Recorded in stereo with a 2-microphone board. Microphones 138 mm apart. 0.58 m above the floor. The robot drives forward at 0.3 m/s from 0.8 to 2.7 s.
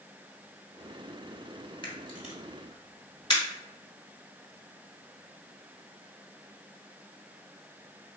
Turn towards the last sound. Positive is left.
turn(degrees=35)  # may be behind; listen again after turning